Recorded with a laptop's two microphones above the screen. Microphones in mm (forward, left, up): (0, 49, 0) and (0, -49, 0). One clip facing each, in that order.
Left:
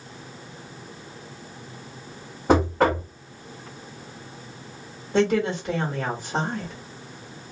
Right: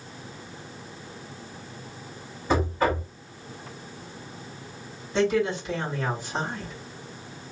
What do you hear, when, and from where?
2.5 s knocking: 75° left (ahead or behind), 1.1 m
5.1 s a woman speaking: 55° left (ahead or behind), 1.3 m